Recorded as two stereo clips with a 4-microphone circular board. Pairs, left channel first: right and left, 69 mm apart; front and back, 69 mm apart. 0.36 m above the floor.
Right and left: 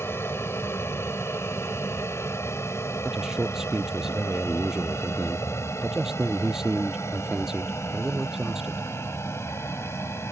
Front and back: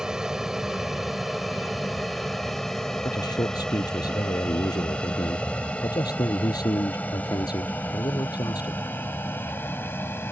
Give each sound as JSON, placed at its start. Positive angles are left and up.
{"t": 0.0, "sound": "an aircraft", "azimuth_deg": -105}
{"t": 3.0, "sound": "a man speaking", "azimuth_deg": 10}